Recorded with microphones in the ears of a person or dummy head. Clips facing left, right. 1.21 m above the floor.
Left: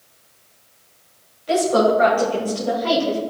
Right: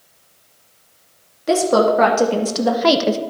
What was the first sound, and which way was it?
A woman speaking, 70° right (ahead or behind).